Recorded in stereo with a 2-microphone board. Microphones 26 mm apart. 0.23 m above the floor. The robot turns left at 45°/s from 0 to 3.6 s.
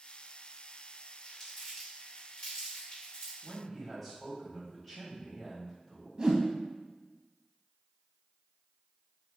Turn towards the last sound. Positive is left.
turn(degrees=-35)  # may be behind; listen again after turning